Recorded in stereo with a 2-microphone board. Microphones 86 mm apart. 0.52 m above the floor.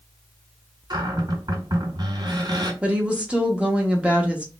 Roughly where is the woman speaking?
Centre.